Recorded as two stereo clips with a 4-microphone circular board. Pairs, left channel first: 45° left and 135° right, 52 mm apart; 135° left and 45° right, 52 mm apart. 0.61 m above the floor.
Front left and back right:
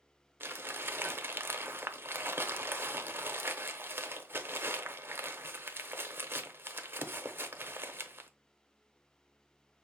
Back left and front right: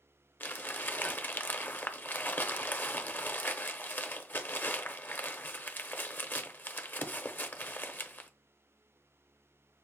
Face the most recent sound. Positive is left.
turn(degrees=-175)